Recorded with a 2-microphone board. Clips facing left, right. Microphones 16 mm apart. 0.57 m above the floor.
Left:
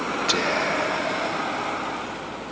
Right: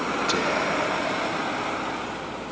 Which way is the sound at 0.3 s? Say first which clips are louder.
Left 3 dB; 20° left (ahead or behind).